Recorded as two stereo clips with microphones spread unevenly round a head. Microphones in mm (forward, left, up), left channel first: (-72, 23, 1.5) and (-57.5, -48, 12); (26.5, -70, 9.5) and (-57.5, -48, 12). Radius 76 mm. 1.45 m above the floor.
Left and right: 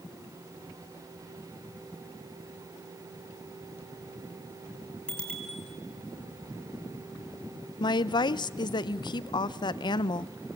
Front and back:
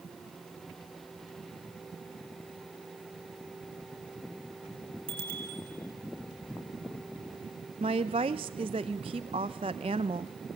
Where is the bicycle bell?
Straight behind, 8.5 m.